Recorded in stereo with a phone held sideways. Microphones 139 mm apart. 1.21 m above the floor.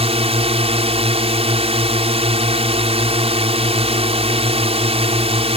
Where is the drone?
45° right (ahead or behind).